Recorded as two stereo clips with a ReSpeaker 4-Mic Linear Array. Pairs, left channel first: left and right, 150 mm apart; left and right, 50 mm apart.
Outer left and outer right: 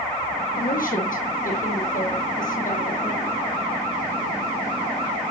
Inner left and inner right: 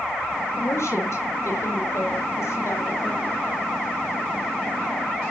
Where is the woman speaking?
65° left (ahead or behind), 4 m; by 3.4 s 60° left (ahead or behind), 4 m.